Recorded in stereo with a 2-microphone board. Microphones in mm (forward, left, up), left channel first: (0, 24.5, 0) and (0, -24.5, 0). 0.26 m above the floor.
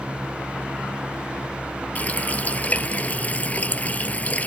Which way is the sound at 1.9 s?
30° left (ahead or behind).